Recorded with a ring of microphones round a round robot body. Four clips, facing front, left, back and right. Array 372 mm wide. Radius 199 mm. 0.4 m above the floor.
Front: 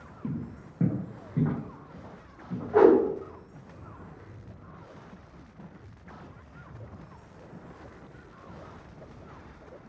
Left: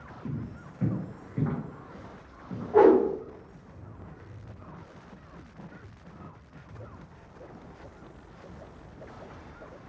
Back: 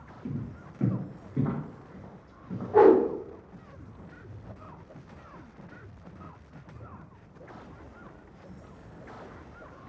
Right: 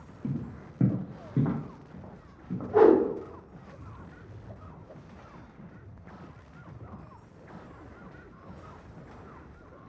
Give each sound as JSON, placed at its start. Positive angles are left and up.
{"t": 0.2, "sound": "footsteps", "azimuth_deg": -45, "distance_m": 0.8}
{"t": 2.7, "sound": "a whoosh", "azimuth_deg": -5, "distance_m": 1.1}